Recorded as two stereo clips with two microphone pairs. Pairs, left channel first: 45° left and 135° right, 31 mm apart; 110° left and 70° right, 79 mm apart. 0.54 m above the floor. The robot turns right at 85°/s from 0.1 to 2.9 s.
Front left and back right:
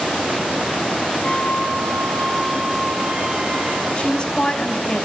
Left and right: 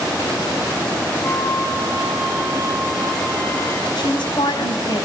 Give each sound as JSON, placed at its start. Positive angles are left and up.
{"t": 1.2, "sound": "a flute", "azimuth_deg": 35, "distance_m": 4.0}
{"t": 4.0, "sound": "a woman speaking", "azimuth_deg": 105, "distance_m": 3.5}